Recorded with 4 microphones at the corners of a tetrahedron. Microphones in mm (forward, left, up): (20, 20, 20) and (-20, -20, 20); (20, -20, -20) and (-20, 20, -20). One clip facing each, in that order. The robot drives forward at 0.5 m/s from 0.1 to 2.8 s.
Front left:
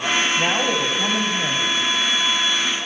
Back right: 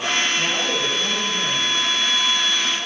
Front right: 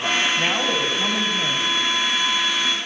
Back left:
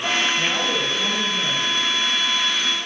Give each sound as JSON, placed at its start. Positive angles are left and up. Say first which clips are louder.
{"t": 0.4, "sound": "a man speaking", "louder": "front left 3 dB, front right 1 dB", "azimuth_deg": 10, "distance_m": 3.0}